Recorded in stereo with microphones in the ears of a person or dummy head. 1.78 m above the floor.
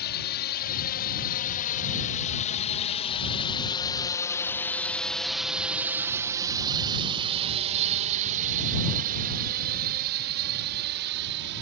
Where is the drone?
60° left (ahead or behind); by 11.6 s 60° right (ahead or behind).